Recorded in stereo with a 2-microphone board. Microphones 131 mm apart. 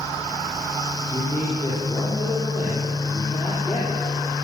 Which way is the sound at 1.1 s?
10° left (ahead or behind).